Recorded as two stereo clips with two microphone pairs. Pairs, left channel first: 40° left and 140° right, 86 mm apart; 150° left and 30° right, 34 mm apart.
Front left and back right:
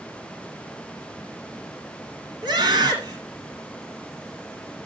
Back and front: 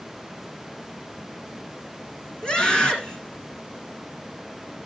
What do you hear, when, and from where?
2.4 s a scream: 150° right, 2.5 m